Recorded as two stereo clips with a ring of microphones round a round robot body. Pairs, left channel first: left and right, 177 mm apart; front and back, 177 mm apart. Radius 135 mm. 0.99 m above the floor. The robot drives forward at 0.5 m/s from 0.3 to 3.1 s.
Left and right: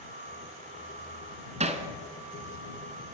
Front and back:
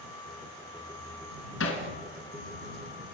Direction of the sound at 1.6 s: 40° right.